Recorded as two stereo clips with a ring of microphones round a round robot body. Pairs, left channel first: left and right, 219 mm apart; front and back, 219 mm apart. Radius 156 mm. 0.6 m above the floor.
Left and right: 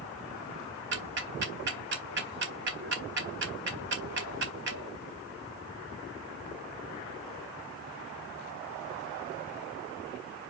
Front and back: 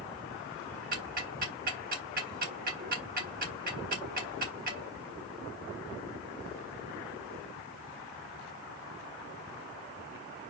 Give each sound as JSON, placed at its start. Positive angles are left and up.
{"t": 0.9, "sound": "ticking", "azimuth_deg": -130, "distance_m": 0.9}